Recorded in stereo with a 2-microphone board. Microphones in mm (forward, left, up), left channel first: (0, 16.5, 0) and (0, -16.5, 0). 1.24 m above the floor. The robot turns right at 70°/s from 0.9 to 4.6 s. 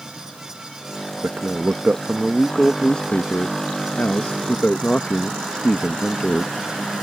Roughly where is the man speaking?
Right.